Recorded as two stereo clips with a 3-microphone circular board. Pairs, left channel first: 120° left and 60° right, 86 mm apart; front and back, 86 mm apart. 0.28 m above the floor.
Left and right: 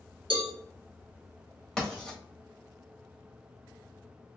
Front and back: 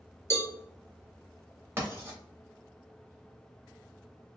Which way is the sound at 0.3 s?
60° right.